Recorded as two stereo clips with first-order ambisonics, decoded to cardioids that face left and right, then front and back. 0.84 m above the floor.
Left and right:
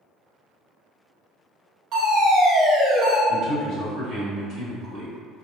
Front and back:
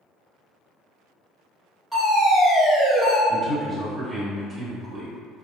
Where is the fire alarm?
100° right, 1.7 m.